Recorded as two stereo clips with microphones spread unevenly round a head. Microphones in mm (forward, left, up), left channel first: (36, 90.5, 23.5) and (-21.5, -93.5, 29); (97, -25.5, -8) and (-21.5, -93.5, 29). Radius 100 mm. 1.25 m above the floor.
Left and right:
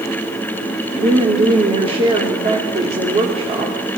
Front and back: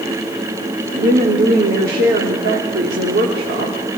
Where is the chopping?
No chopping in this recording.